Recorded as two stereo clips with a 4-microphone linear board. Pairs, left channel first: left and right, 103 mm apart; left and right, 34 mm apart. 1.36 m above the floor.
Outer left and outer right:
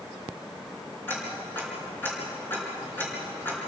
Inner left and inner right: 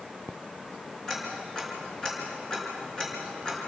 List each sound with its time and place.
1.1 s ticking: 20° left (ahead or behind), 5.5 m